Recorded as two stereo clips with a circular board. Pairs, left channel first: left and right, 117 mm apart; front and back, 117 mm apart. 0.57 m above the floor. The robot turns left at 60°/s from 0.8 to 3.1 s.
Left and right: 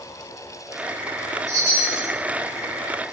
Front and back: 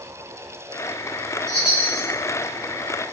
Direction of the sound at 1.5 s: 85° right.